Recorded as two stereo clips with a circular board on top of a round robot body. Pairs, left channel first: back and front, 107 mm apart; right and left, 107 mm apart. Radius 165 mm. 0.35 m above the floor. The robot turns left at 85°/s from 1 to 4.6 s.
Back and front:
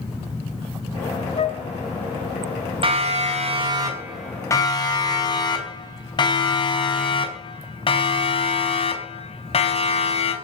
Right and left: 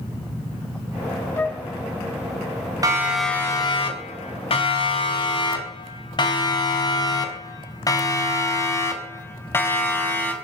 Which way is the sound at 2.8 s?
35° left.